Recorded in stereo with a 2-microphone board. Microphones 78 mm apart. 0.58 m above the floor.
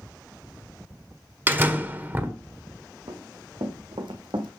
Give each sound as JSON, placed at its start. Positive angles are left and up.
{"t": 1.5, "sound": "a door slam", "side_deg": -25, "distance_m": 1.4}
{"t": 3.1, "sound": "running footsteps", "side_deg": -80, "distance_m": 3.0}